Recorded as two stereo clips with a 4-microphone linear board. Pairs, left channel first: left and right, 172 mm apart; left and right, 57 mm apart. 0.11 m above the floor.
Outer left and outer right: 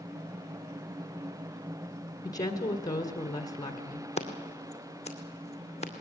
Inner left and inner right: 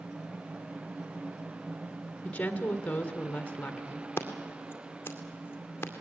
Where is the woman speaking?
20° left (ahead or behind), 1.6 m.